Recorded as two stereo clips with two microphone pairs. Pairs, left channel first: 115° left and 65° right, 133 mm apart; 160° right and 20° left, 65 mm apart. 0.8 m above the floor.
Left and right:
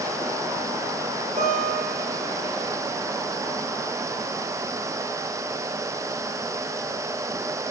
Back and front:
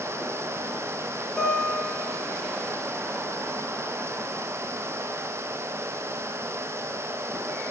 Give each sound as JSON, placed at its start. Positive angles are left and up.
{"t": 1.4, "sound": "a guitar", "azimuth_deg": -85, "distance_m": 5.5}